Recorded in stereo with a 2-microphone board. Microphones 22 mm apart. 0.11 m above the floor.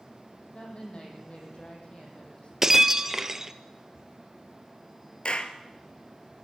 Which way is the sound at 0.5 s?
50° left (ahead or behind).